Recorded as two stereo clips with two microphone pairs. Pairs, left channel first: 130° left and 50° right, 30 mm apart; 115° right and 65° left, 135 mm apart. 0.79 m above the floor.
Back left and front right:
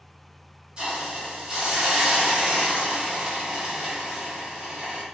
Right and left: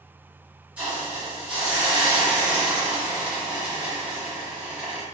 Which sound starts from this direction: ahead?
A hiss, at 0.8 s.